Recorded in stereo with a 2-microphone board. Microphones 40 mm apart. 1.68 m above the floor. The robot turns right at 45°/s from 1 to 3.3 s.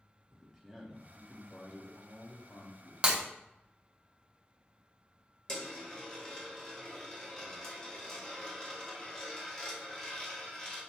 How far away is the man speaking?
About 1.0 m.